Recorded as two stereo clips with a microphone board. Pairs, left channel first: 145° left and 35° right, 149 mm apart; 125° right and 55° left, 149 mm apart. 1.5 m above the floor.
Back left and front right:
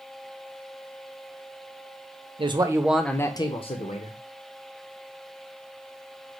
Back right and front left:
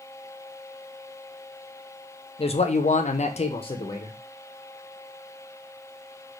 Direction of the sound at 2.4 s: 80° right.